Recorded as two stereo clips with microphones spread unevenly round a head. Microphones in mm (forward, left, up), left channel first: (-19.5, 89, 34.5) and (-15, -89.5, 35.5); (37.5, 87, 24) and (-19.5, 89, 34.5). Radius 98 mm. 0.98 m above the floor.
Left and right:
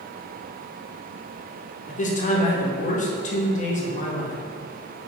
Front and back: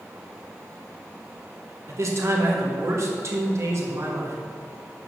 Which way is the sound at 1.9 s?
140° left.